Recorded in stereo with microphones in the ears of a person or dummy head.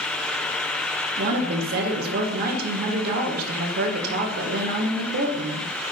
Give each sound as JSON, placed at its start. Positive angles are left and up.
{"t": 1.2, "sound": "a woman speaking", "side_deg": -55, "distance_m": 1.4}